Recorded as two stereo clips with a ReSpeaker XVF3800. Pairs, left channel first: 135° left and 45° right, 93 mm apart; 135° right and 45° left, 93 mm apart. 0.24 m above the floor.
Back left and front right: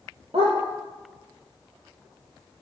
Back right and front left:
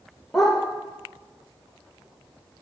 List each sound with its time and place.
0.3 s a dog barking: 45° right, 3 m